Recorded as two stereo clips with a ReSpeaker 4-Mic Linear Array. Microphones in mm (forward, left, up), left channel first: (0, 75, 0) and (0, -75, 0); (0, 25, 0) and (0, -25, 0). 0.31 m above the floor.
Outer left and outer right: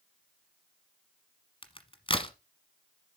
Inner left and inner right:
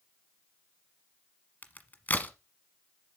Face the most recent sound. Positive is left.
turn(degrees=35)  # may be behind; listen again after turning